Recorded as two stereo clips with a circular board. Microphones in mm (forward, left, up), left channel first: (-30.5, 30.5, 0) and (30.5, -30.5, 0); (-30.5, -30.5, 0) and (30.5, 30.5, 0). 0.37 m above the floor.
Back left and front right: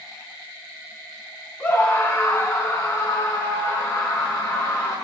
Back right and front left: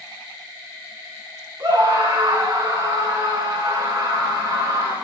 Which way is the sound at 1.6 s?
80° left.